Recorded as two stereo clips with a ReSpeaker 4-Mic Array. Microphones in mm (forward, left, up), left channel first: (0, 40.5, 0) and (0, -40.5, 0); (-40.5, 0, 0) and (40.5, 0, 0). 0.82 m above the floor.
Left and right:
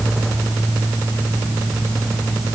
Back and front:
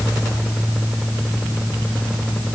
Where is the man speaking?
No man speaking in this recording.